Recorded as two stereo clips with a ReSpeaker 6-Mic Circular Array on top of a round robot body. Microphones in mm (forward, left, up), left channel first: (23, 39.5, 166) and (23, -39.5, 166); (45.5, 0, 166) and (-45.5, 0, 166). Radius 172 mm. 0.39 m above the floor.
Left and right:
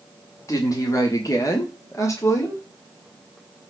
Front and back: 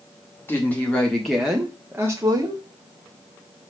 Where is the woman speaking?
60° left, 1.8 m; by 2.6 s 140° left, 1.9 m.